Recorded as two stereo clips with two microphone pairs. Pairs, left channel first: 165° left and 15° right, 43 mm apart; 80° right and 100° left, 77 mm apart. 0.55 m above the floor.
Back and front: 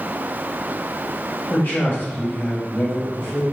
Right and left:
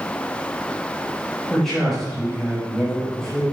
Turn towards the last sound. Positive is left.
turn(degrees=-165)